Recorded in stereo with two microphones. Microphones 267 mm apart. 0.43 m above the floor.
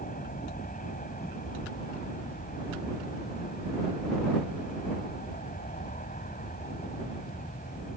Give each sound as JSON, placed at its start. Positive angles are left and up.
{"t": 0.0, "sound": "an aircraft", "side_deg": 30}